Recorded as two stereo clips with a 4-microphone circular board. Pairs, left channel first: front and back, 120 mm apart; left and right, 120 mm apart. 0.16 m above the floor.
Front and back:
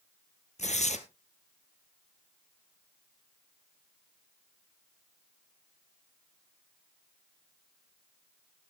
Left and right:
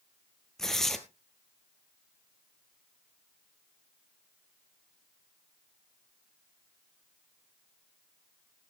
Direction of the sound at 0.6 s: 5° left.